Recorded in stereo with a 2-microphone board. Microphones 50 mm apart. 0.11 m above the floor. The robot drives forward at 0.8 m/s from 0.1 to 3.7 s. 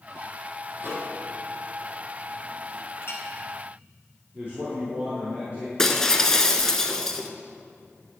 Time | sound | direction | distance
0.8 | a microwave | 50° right (ahead or behind) | 3 m
3.0 | a clink | 55° left (ahead or behind) | 2 m
4.3 | a man speaking | 40° right (ahead or behind) | 4 m
5.8 | breaking glass | 10° left (ahead or behind) | 0.8 m